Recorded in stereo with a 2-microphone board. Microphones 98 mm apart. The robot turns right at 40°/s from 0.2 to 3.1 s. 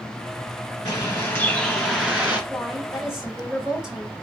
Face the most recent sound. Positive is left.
turn(degrees=-10)  # may be behind; listen again after turning